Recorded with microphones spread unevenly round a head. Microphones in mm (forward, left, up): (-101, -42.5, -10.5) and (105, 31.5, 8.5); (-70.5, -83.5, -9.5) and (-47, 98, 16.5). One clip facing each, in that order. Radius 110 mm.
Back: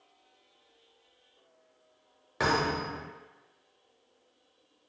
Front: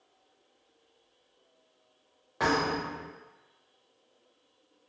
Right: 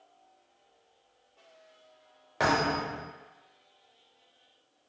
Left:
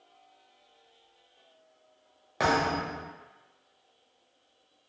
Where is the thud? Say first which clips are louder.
Front 1 dB, even; 160° left, 1.0 m.